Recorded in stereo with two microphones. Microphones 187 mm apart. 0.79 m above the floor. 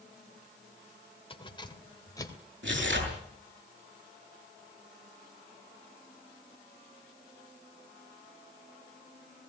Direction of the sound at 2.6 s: 90° right.